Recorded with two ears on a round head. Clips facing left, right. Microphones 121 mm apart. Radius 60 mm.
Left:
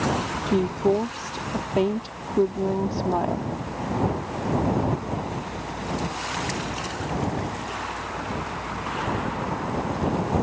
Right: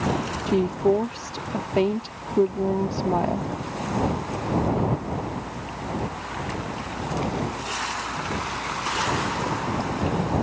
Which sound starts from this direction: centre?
A woman speaking, at 0.5 s.